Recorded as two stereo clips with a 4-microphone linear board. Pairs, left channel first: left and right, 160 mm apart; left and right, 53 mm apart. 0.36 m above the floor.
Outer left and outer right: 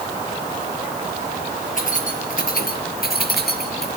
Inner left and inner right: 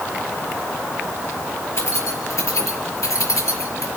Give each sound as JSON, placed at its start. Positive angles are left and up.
{"t": 1.8, "sound": "keys jangling", "side_deg": 55, "distance_m": 5.0}